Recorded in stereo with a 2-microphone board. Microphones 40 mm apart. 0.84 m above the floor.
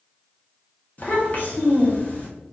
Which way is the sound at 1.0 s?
40° left (ahead or behind).